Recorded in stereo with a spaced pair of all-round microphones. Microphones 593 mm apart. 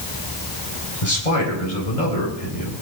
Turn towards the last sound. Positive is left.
turn(degrees=85)